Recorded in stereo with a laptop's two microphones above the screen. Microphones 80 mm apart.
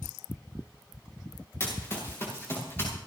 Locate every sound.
1.6 s running footsteps: 30° left (ahead or behind), 6.5 m